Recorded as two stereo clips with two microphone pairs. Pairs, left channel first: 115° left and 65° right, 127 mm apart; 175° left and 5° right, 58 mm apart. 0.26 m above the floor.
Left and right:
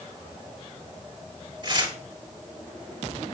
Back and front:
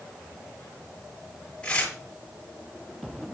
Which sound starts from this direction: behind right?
Tearing paper, at 1.6 s.